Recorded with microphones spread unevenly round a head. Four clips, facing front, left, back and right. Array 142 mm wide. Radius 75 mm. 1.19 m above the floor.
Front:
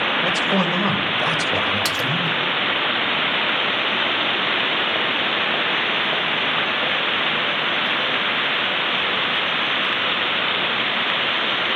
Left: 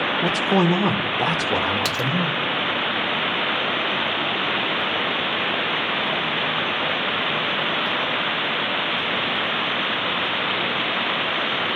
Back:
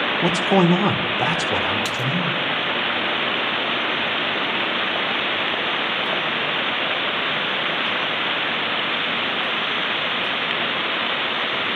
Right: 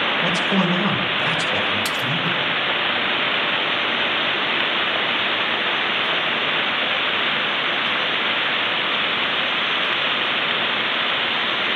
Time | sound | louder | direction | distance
0.2 | a man speaking | left 4 dB, back 7 dB | 150° left | 3 m
1.9 | a splash | even, front 1 dB | 70° left | 0.7 m